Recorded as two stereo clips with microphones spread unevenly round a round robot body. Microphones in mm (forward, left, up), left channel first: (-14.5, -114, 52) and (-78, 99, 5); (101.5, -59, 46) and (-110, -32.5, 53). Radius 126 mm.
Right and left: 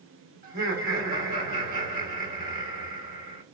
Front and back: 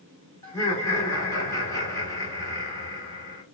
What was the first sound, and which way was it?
Laughter, 70° left.